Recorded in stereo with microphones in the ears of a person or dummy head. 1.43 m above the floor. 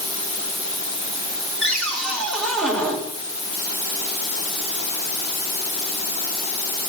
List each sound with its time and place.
1.6 s a cupboard door: 5° left (ahead or behind), 2.5 m